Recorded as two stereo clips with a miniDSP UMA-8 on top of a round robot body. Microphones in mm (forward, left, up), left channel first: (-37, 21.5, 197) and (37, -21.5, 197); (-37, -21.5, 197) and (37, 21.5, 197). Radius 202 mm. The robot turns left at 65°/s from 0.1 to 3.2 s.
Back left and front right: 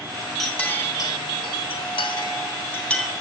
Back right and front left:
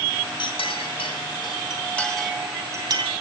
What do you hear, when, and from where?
0.4 s a clink: 125° right, 3 m; by 3.2 s 55° left, 3 m